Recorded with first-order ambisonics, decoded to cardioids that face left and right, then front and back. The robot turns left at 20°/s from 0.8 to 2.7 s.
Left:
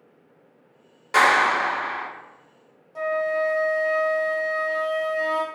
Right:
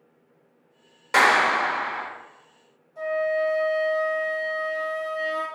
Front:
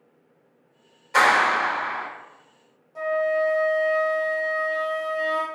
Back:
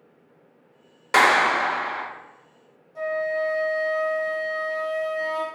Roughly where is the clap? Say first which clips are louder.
Left 1 dB, back 1 dB; behind.